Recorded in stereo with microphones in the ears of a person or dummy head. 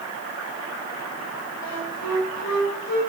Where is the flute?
75° left (ahead or behind), 4.5 m.